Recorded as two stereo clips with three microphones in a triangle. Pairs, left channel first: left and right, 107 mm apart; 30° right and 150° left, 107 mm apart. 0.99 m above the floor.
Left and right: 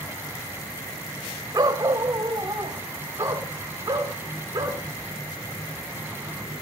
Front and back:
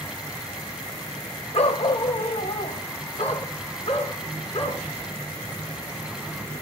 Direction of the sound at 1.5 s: 35° right.